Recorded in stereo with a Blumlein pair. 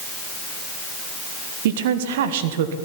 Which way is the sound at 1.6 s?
55° right.